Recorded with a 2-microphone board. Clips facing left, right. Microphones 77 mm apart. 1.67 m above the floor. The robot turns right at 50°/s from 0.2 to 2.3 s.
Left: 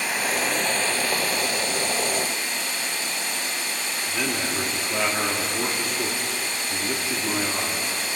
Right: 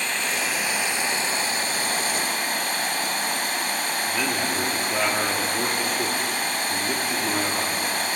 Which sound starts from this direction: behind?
Running water, at 0.0 s.